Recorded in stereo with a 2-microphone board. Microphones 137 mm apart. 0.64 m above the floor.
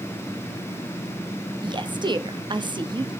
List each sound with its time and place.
1.6 s a woman speaking: 35° right (ahead or behind), 0.6 m